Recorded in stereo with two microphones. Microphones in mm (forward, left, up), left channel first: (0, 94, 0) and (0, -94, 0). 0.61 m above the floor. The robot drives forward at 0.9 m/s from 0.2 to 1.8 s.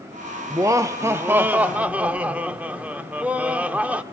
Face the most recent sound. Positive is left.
turn(degrees=-5)  # may be behind; listen again after turning